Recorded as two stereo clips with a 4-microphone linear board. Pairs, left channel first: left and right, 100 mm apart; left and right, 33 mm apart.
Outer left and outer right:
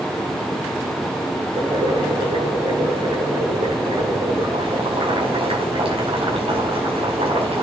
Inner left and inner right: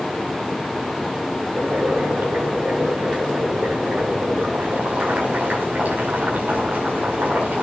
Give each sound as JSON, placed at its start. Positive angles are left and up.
{"t": 1.5, "sound": "boiling", "side_deg": -75, "distance_m": 5.5}